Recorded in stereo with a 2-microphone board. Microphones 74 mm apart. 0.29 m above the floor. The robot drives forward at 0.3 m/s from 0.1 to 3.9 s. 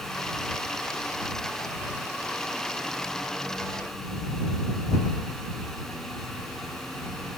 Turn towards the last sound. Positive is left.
No sound to turn to.